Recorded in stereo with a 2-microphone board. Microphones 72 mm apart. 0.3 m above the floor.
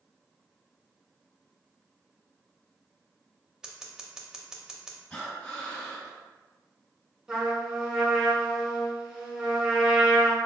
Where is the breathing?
15° left (ahead or behind), 1.9 m.